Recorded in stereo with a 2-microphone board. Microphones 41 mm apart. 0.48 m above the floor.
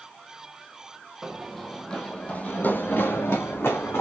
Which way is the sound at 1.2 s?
10° right (ahead or behind).